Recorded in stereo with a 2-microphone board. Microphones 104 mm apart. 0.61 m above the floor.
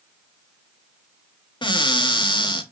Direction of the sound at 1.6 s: 50° left (ahead or behind).